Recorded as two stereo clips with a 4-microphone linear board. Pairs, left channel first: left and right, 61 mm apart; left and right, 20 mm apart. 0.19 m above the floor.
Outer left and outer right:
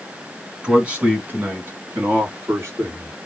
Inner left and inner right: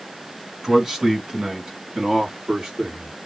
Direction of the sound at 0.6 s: 15° right (ahead or behind).